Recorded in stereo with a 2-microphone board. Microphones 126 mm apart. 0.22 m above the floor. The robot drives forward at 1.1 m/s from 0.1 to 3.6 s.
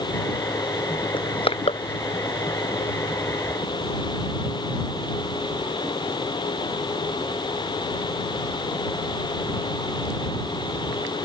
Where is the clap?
No clap in this recording.